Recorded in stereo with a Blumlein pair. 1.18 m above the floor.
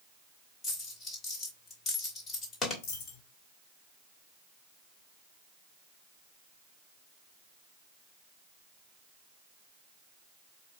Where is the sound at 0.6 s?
20° left, 1.4 m.